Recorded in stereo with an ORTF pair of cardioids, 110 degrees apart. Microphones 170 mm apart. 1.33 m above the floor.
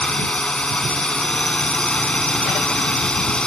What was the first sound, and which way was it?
A drone, 5° left.